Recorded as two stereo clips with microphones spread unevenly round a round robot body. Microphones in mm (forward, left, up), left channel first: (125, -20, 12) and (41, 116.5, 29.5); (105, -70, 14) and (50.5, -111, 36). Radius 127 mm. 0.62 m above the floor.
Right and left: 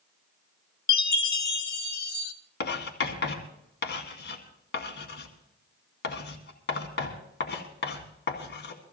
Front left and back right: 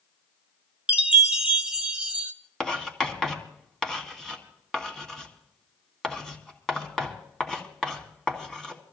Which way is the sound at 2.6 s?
50° right.